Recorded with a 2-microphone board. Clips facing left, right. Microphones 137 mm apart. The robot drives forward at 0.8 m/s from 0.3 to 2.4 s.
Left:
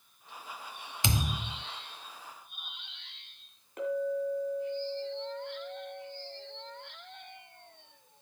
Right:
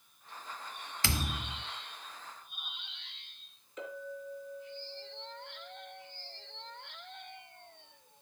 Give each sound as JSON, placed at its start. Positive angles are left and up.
{"t": 1.0, "sound": "a thud", "side_deg": 20, "distance_m": 0.7}
{"t": 3.8, "sound": "a clink", "side_deg": 60, "distance_m": 2.5}